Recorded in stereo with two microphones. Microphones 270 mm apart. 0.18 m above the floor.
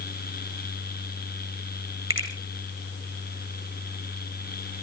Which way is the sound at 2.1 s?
50° right (ahead or behind).